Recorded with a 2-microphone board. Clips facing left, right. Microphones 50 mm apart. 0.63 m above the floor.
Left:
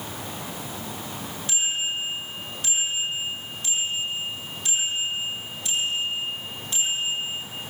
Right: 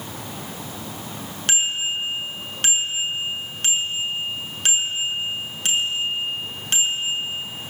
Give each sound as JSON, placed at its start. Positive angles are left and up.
{"t": 1.5, "sound": "a bicycle bell", "side_deg": -70, "distance_m": 6.0}